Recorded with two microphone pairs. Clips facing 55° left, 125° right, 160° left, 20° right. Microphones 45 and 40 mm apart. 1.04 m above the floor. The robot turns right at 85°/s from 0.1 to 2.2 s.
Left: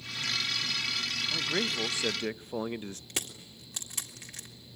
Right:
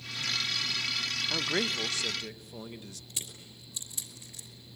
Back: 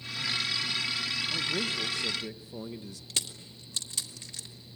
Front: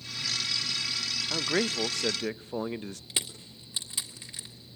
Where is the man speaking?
65° right, 0.6 m; by 3.0 s 10° left, 0.6 m.